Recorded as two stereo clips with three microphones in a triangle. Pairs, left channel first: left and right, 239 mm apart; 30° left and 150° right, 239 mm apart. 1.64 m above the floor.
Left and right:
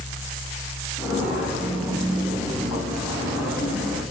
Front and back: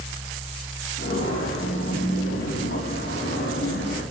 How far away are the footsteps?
About 5.5 m.